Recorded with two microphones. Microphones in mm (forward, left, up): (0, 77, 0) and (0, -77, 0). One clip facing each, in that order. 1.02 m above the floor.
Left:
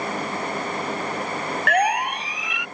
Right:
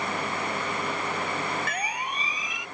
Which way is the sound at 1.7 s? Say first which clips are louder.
Left 12 dB; 70° left (ahead or behind).